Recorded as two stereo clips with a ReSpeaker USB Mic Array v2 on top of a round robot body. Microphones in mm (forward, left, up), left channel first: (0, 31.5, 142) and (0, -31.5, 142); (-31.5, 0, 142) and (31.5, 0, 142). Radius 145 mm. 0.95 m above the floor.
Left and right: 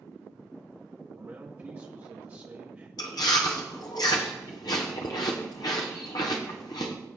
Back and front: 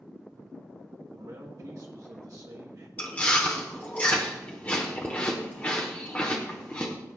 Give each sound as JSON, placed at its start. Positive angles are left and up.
{"t": 1.1, "sound": "a man speaking", "azimuth_deg": -30, "distance_m": 1.3}
{"t": 3.0, "sound": "chewing", "azimuth_deg": 110, "distance_m": 0.8}